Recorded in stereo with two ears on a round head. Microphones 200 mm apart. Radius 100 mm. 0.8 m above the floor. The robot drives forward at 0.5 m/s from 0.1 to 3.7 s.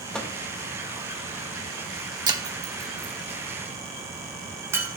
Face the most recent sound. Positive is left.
turn(degrees=-10)  # may be behind; listen again after turning